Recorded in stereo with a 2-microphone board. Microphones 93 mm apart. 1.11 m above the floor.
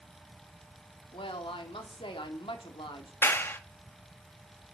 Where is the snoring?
No snoring in this recording.